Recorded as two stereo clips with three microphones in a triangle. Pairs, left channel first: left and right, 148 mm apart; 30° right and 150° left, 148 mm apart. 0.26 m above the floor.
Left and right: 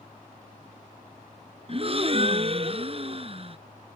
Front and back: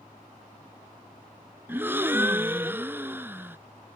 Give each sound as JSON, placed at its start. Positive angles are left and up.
{"t": 1.7, "sound": "a gasp", "azimuth_deg": -135}